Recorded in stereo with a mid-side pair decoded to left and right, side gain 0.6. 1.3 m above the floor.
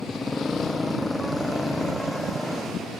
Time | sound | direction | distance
0.0 | a motorcycle | 20° left | ?